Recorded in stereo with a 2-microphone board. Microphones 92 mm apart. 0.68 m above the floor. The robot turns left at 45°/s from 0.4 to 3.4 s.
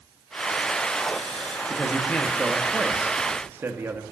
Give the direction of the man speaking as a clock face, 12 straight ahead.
11 o'clock.